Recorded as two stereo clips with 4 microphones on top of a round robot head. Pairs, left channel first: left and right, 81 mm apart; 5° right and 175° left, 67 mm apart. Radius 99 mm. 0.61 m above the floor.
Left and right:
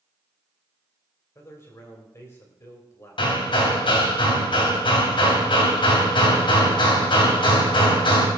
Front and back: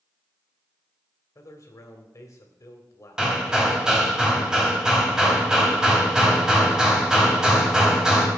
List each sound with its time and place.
1.4 s a man speaking: 30° left, 3 m
3.2 s hammering: 95° left, 3 m